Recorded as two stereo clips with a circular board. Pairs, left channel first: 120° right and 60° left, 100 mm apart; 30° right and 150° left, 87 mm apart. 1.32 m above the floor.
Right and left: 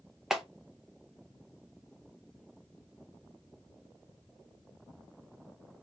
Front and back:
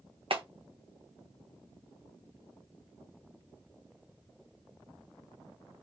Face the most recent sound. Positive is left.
turn(degrees=145)